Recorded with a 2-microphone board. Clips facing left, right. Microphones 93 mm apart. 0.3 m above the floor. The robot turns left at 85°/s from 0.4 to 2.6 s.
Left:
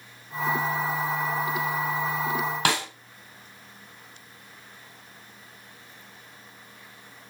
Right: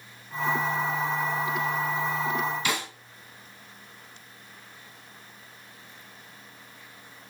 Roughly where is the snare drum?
Left.